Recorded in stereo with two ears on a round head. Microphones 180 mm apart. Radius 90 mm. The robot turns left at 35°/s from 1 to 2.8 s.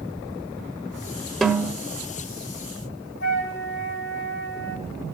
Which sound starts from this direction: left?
A flute, at 3.2 s.